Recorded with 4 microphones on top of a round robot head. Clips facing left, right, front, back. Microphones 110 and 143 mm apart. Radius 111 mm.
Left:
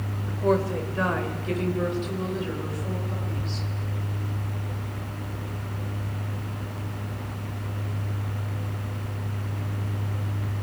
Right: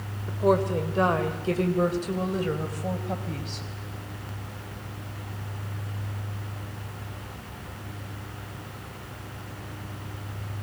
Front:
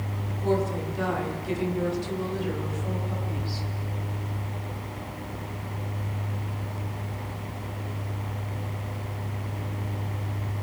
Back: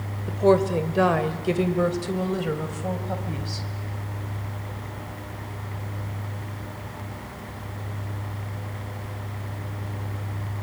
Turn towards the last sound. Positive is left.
turn(degrees=-135)